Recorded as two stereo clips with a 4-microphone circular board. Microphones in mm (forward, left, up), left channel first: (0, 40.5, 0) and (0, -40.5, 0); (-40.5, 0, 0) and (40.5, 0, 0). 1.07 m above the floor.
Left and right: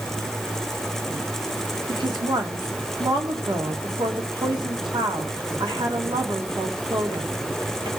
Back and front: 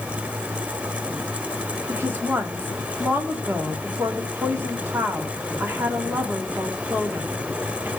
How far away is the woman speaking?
About 2 m.